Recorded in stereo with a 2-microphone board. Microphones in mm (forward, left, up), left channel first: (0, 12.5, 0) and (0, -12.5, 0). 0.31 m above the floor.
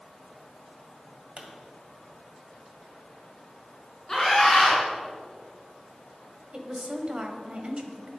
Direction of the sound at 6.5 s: 40° right (ahead or behind).